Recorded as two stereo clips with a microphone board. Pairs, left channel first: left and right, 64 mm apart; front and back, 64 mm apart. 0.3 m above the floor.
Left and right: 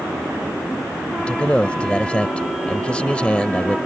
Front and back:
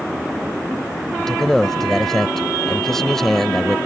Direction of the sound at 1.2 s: 70° left.